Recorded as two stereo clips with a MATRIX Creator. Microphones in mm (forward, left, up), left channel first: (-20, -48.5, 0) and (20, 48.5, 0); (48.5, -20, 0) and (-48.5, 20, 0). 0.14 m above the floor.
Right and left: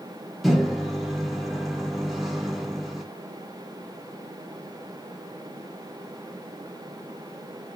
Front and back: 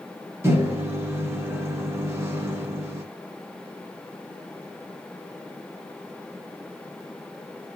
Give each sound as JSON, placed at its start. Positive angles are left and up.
{"t": 0.4, "sound": "a microwave", "azimuth_deg": 155, "distance_m": 0.9}